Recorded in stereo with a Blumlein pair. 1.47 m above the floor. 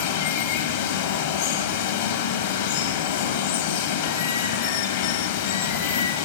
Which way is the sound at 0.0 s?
55° left.